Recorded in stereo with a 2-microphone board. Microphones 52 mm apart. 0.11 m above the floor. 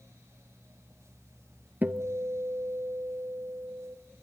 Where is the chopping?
No chopping in this recording.